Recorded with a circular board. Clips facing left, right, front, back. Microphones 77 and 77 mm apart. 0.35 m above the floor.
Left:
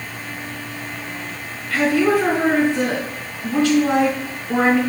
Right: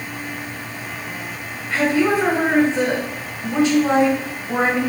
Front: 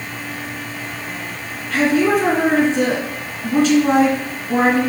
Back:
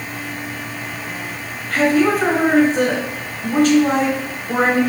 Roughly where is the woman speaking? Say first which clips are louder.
Left 1 dB, even; behind right.